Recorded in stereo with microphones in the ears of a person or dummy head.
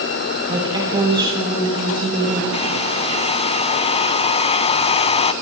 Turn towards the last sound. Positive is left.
turn(degrees=30)  # may be behind; listen again after turning